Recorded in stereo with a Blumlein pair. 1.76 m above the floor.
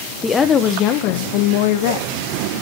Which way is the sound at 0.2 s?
10° left.